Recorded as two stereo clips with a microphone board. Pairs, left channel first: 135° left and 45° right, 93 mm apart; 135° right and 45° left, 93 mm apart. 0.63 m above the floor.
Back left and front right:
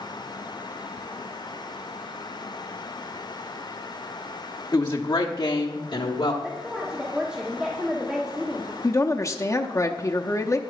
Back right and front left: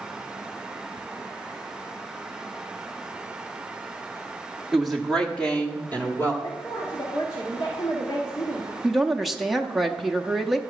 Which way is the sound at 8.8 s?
130° left.